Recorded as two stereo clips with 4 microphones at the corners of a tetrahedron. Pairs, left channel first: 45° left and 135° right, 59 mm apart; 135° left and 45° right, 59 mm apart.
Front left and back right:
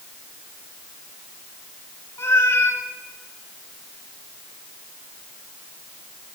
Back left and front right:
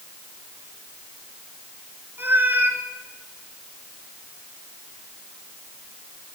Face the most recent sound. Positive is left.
turn(degrees=5)